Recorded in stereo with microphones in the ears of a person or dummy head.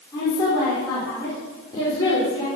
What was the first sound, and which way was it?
A woman speaking, 20° left (ahead or behind).